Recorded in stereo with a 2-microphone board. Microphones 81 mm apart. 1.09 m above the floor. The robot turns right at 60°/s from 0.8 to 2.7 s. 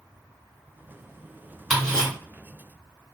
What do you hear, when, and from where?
1.7 s ticking: 5° right (ahead or behind), 1.4 m; by 2.1 s 20° left (ahead or behind), 1.4 m